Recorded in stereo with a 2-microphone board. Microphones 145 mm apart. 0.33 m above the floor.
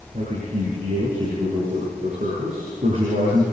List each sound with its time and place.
0.1 s a man speaking: 60° right (ahead or behind), 9 m